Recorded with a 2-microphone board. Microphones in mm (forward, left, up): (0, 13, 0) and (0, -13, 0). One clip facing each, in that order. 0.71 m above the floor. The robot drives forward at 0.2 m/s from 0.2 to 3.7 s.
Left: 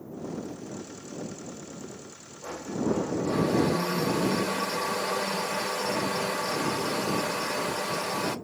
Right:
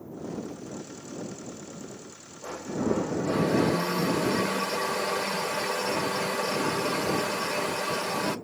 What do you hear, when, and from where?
2.4 s a blender: 40° right (ahead or behind), 0.7 m; by 8.4 s 50° right (ahead or behind), 0.5 m